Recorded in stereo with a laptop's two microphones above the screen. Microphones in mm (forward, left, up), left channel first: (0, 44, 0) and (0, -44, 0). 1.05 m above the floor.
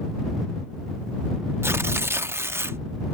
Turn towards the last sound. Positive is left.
turn(degrees=-25)  # may be behind; listen again after turning